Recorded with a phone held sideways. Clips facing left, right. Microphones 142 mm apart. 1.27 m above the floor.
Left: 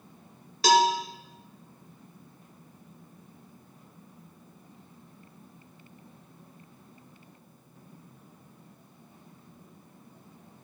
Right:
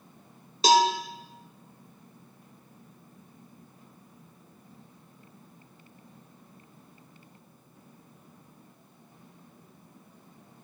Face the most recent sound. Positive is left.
turn(degrees=-25)  # may be behind; listen again after turning